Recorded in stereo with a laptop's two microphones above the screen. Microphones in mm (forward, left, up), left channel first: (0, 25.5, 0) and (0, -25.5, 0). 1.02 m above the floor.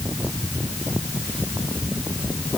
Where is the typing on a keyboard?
No typing on a keyboard in this recording.